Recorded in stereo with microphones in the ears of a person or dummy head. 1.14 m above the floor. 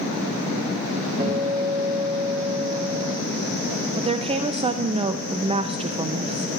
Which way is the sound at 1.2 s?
40° right (ahead or behind).